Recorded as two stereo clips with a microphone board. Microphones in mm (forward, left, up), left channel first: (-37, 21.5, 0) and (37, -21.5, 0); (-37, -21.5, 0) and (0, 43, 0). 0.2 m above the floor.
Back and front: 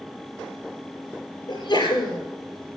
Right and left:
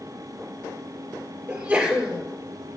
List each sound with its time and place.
1.5 s a sneeze: 135° left, 4.5 m